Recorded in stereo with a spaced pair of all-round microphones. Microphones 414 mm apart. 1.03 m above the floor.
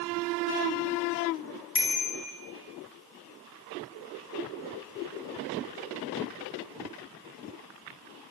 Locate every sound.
1.8 s a bicycle bell: 30° left (ahead or behind), 9.5 m